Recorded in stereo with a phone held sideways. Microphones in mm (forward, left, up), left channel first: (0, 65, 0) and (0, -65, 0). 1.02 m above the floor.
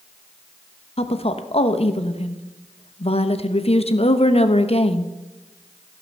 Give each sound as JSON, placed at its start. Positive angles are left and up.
{"t": 1.0, "sound": "a woman speaking", "side_deg": 50, "distance_m": 1.0}